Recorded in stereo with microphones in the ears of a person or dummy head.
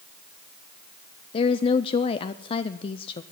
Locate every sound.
1.3 s a woman speaking: 30° left (ahead or behind), 0.5 m